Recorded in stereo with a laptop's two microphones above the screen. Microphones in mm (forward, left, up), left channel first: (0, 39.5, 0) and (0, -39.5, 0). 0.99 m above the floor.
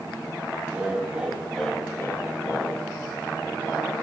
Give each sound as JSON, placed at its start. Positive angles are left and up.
{"t": 0.7, "sound": "laughter", "side_deg": -20, "distance_m": 1.9}